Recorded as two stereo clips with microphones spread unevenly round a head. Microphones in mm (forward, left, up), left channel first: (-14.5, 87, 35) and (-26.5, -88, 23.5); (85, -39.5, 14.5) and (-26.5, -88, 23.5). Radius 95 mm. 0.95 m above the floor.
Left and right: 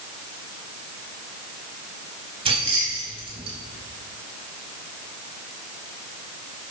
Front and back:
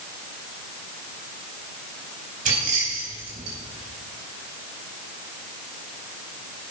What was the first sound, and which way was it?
Keys jangling, 155° right.